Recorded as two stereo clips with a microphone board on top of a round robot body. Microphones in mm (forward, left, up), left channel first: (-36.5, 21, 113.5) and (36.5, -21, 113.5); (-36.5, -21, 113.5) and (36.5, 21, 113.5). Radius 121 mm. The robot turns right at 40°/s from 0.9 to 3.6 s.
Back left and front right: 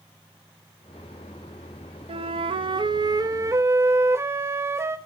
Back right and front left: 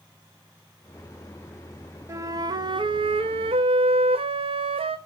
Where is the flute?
30° right, 1.0 m; by 5.0 s 30° left, 1.0 m.